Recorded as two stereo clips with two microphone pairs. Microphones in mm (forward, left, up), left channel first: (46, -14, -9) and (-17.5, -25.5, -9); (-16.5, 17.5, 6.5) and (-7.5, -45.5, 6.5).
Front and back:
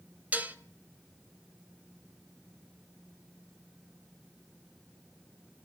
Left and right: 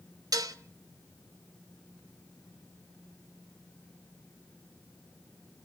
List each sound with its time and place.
0.3 s dishes clattering: 100° right, 0.8 m